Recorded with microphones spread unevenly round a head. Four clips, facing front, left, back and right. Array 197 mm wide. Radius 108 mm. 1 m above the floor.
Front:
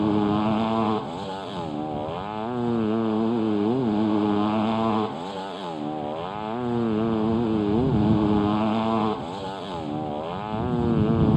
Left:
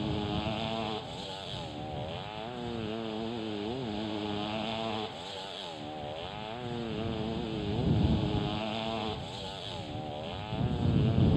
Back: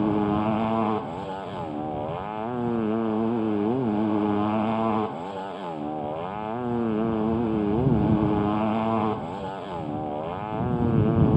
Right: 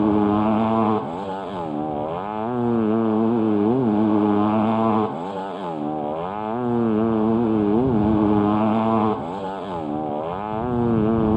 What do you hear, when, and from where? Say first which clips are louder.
0.0 s a motorcycle: right 16 dB, front 1 dB; 70° right